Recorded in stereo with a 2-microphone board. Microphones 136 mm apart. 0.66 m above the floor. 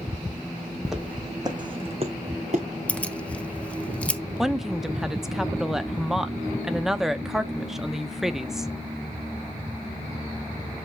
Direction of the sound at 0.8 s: Centre (ahead or behind).